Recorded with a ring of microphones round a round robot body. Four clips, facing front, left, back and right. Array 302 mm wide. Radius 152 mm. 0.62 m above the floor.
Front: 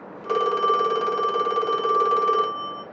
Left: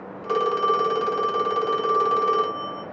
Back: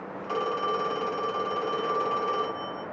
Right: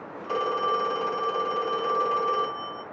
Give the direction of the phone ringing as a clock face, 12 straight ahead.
10 o'clock.